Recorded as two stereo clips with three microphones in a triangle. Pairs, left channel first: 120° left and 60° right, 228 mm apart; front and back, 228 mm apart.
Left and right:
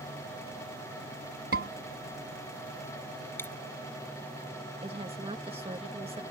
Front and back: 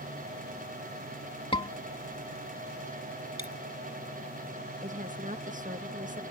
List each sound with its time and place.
1.5 s a scream: 65° right
3.4 s a dropped coin: 160° right
4.8 s a woman speaking: 125° right